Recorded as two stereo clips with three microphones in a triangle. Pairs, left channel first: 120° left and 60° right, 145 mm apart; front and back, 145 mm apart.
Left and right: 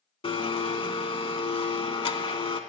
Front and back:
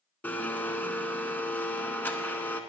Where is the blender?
75° left, 0.6 m.